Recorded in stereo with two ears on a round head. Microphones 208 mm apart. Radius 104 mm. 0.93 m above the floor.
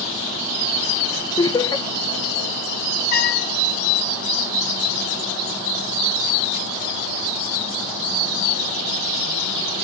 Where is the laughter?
20° left (ahead or behind), 0.6 m.